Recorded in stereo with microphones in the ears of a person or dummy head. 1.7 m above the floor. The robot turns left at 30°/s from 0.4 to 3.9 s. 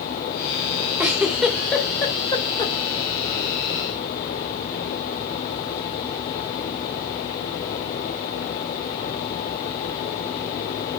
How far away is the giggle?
About 1.7 m.